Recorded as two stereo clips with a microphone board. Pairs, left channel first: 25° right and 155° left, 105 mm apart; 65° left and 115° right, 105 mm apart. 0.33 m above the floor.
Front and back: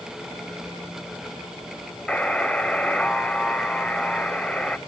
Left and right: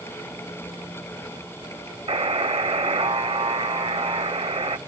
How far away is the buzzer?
About 0.7 m.